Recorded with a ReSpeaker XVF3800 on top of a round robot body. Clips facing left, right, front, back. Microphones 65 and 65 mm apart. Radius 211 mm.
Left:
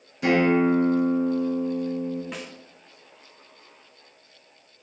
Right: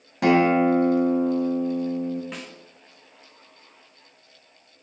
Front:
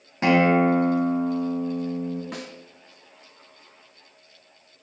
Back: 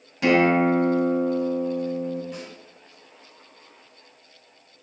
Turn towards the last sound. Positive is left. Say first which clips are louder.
# left 1 dB, front 1 dB
turn(degrees=0)